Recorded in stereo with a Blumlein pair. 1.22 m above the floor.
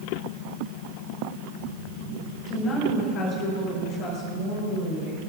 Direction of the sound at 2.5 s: 30° left.